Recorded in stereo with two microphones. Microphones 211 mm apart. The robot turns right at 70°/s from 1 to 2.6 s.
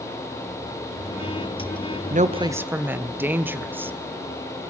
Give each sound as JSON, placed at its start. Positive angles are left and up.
{"t": 2.1, "sound": "a woman speaking", "azimuth_deg": -45, "distance_m": 0.7}